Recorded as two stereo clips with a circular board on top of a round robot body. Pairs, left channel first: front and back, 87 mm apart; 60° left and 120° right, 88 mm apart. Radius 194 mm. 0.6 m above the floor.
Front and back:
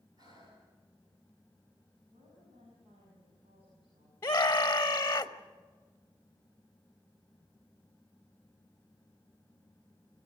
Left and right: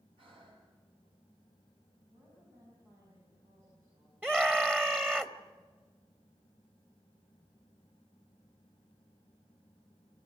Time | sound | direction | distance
0.2 | breathing | 135° right | 7 m
2.1 | a woman speaking | 175° right | 6 m
4.2 | a scream | 55° right | 1.1 m